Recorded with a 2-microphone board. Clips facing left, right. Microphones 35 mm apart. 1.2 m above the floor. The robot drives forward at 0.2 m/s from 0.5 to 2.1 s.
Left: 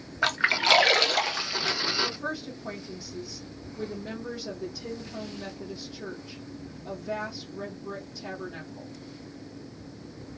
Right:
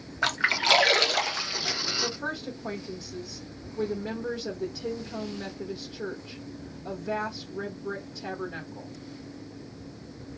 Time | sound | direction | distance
0.2 | a splash | 5° left (ahead or behind) | 0.5 m
2.0 | a woman speaking | 45° right (ahead or behind) | 1.0 m